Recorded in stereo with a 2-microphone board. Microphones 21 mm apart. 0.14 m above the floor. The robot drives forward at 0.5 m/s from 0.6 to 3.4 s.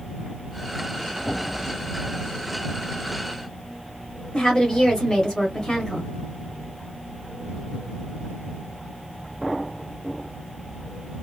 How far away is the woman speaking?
About 1.2 m.